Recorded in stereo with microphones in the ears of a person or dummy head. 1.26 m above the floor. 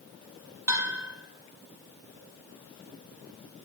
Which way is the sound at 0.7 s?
15° right (ahead or behind).